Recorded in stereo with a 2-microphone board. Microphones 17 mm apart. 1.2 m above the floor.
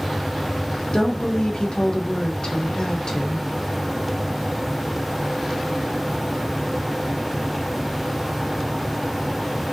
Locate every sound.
0.9 s a woman speaking: 50° left (ahead or behind), 0.8 m